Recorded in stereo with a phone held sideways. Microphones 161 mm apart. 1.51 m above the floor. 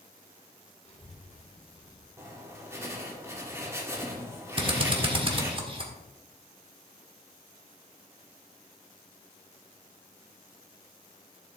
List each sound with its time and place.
0.8 s a child speaking: 45° left (ahead or behind), 3.5 m; by 2.1 s 40° left (ahead or behind), 2.5 m
2.2 s writing: 15° right (ahead or behind), 2.0 m
4.6 s a drill: 35° right (ahead or behind), 1.5 m